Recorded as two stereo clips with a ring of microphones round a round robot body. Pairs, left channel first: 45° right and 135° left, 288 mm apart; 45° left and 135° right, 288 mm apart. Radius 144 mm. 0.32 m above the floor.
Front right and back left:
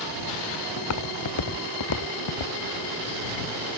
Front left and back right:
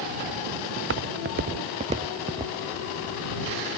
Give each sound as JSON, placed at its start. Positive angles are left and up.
{"t": 0.8, "sound": "footsteps", "azimuth_deg": -85}